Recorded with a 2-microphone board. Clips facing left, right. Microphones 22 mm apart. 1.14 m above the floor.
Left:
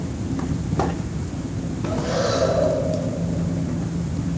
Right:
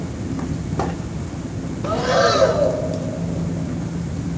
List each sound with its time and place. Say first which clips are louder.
1.8 s breathing: right 6 dB; 70° right (ahead or behind), 2.5 m